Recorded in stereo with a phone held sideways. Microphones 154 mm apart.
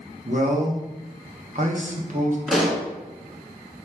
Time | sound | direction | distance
0.2 | a man speaking | 50° right (ahead or behind) | 1.2 m
2.5 | a pop | 5° right (ahead or behind) | 1.8 m